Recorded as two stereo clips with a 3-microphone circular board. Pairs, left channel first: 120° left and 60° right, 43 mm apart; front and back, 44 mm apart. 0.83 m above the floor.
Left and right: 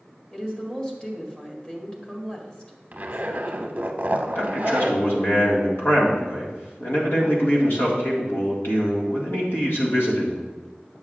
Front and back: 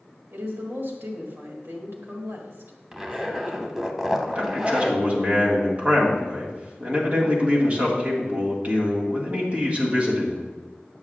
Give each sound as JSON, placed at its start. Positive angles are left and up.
{"t": 0.3, "sound": "a woman speaking", "azimuth_deg": -175, "distance_m": 1.6}
{"t": 2.9, "sound": "a zipper", "azimuth_deg": -105, "distance_m": 0.7}
{"t": 4.3, "sound": "a man speaking", "azimuth_deg": 130, "distance_m": 1.8}